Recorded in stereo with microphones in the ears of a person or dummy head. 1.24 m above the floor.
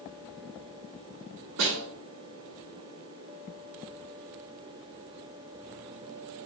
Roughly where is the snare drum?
Right.